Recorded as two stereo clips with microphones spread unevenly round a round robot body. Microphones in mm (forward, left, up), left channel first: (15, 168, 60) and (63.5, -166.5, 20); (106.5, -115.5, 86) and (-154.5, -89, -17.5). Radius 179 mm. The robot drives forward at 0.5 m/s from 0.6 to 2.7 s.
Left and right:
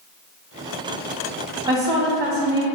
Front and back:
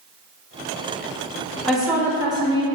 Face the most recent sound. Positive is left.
turn(degrees=-160)